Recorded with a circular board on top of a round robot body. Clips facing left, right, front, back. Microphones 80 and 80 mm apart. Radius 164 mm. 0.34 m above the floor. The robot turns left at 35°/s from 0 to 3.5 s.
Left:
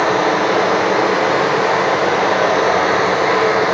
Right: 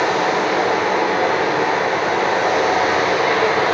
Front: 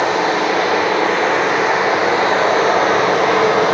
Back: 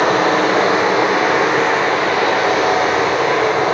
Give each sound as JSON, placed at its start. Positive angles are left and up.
{"t": 0.0, "sound": "running water", "azimuth_deg": 140, "distance_m": 0.7}